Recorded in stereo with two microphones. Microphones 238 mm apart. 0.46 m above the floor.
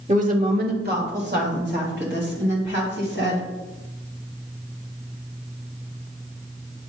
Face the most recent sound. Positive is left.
turn(degrees=-50)  # may be behind; listen again after turning